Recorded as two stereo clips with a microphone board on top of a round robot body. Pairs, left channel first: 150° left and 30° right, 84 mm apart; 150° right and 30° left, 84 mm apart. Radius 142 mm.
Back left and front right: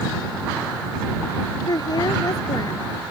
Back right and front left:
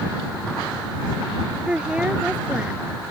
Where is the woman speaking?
105° left.